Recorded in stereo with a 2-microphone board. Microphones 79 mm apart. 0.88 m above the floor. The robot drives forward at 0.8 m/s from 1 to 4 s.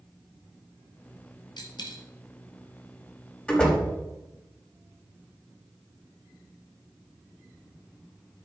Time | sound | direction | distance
1.6 | a dropped coin | 70° left (ahead or behind) | 2 m
3.5 | a door slam | 10° left (ahead or behind) | 4.5 m